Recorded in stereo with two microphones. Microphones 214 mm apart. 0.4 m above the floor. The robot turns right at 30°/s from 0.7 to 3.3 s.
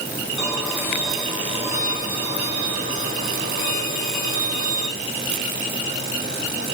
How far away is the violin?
About 2.5 m.